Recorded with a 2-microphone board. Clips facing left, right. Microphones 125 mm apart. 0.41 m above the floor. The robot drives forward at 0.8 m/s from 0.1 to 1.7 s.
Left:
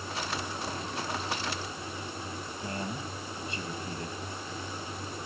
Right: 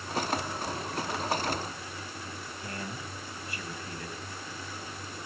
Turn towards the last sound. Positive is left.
turn(degrees=25)  # may be behind; listen again after turning